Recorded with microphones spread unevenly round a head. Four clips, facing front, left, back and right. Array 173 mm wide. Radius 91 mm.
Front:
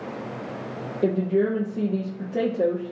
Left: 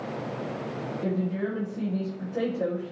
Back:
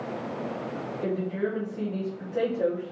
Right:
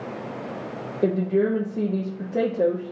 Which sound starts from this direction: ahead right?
A woman speaking, at 1.0 s.